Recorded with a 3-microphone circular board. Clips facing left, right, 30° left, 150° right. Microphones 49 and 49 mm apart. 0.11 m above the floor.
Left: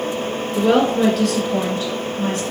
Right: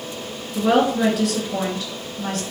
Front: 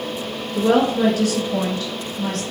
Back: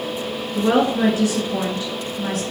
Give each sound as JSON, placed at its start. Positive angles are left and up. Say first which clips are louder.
{"t": 0.6, "sound": "a woman speaking", "louder": "left 2 dB, front 1 dB", "azimuth_deg": -150, "distance_m": 1.7}